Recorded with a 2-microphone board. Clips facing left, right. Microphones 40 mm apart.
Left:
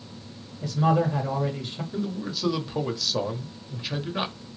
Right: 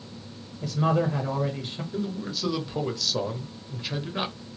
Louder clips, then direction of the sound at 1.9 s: Left 1 dB; 10° left (ahead or behind).